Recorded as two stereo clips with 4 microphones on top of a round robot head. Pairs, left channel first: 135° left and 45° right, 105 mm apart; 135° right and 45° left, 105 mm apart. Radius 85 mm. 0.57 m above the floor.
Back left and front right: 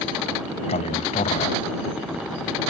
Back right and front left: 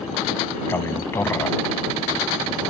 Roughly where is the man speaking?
Behind left.